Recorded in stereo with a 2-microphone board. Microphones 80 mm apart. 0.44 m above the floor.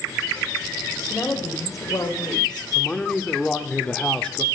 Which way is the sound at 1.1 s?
30° left (ahead or behind).